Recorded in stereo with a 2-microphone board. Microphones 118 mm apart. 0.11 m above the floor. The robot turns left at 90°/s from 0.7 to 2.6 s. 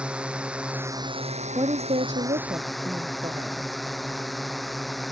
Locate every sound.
0.0 s a drone: 10° right; by 5.1 s straight behind
1.6 s a woman speaking: 45° right; by 3.7 s 140° right